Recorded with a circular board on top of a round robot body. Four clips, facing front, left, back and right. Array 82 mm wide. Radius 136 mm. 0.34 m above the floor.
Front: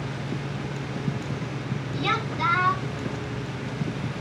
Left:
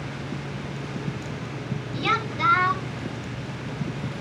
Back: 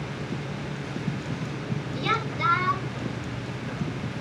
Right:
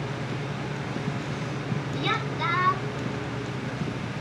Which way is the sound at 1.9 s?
70° left.